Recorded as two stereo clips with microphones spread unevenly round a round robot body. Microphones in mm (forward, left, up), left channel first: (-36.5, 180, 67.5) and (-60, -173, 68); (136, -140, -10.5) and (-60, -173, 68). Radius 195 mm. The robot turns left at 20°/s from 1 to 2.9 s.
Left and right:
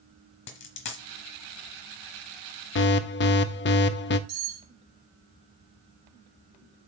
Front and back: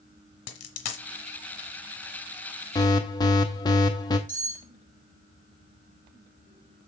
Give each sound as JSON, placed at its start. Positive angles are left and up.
{"t": 0.5, "sound": "a dropped coin", "azimuth_deg": 25, "distance_m": 1.1}
{"t": 2.8, "sound": "an alarm", "azimuth_deg": 45, "distance_m": 0.6}
{"t": 4.3, "sound": "cutlery clinking", "azimuth_deg": -70, "distance_m": 5.5}